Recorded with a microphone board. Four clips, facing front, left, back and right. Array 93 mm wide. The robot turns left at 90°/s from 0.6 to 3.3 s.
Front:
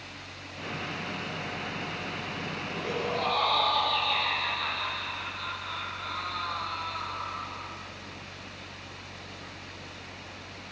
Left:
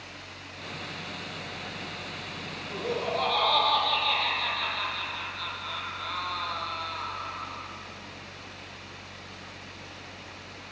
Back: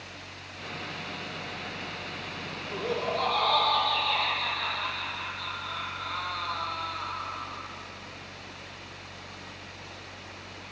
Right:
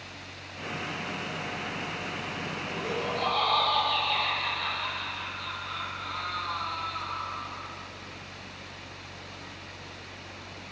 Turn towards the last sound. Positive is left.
turn(degrees=95)